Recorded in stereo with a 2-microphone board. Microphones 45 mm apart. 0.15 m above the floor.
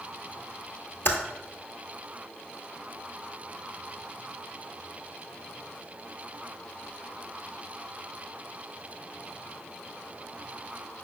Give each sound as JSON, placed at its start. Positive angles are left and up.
{"t": 1.1, "sound": "typing on a keyboard", "side_deg": 55, "distance_m": 0.7}